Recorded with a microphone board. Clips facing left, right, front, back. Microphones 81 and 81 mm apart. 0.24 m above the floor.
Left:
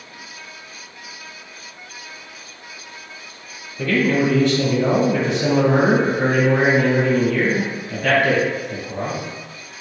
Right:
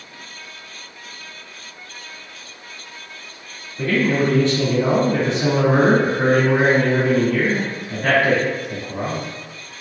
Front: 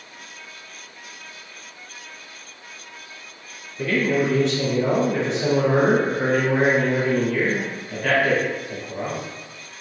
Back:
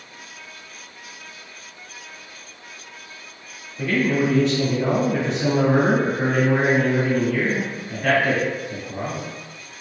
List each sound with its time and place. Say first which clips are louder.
3.8 s a man speaking: left 1 dB, even; 95° right, 1.3 m